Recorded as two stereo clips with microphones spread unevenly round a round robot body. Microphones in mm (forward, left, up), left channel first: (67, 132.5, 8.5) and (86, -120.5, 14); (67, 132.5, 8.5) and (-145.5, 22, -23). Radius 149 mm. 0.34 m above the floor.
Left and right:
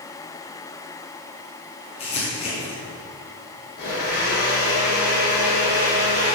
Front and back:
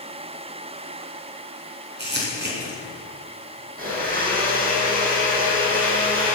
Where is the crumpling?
165° left, 4.5 m.